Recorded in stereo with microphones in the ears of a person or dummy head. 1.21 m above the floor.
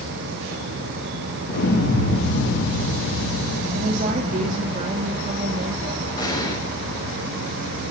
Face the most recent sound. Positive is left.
turn(degrees=20)  # may be behind; listen again after turning